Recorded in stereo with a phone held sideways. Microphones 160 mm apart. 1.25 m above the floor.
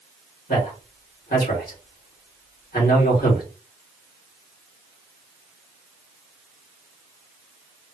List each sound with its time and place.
0.5 s a man speaking: 65° left (ahead or behind), 2.5 m